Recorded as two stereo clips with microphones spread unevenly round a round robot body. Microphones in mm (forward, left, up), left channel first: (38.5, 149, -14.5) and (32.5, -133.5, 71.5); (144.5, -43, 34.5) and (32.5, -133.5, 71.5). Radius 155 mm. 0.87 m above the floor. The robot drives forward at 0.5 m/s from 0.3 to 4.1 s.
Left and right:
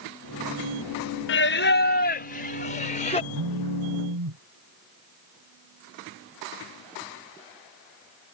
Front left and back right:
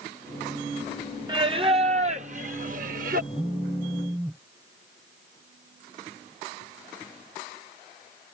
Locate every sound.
1.3 s singing: 145° left; by 3.2 s 160° left
3.3 s a phone buzzing: 65° right